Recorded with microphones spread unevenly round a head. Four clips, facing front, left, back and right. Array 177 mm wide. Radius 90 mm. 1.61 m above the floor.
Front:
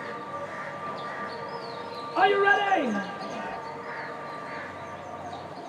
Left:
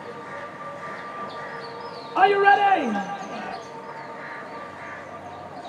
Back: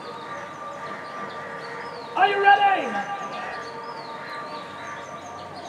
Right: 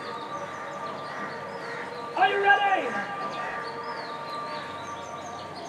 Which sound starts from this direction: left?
A shout, at 2.1 s.